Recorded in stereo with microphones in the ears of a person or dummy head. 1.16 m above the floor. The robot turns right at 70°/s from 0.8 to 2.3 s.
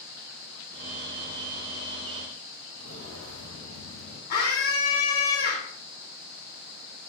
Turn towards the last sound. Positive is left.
turn(degrees=45)  # may be behind; listen again after turning